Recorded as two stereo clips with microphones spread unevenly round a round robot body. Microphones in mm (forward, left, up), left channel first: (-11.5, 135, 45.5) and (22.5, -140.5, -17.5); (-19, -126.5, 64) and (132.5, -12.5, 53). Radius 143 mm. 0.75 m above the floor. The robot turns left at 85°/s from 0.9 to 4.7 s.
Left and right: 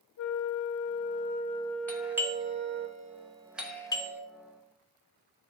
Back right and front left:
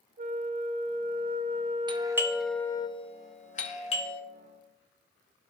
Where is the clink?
No clink in this recording.